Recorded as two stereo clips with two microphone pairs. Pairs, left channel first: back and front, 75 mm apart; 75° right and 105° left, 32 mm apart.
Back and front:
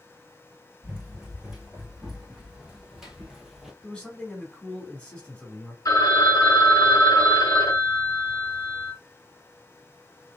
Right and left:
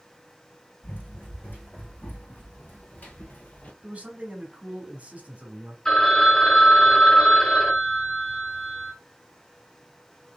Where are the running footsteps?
80° right, 2 m; by 3.7 s 90° right, 0.8 m.